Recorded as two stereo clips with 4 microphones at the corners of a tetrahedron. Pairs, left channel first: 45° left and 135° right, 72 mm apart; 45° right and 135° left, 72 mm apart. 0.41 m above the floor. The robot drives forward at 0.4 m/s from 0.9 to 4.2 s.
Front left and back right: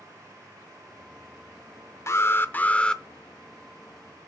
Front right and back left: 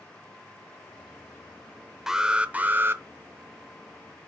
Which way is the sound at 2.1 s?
55° left.